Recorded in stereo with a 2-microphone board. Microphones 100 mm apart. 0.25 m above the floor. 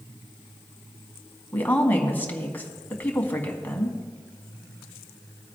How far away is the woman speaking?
About 1.6 m.